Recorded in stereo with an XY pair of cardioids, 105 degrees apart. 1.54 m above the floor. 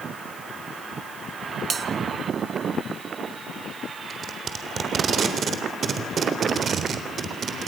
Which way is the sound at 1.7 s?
40° right.